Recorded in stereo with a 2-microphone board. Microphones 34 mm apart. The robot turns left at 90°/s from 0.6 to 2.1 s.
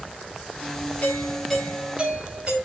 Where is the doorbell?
55° left, 4.5 m; by 2.5 s 40° right, 4.5 m.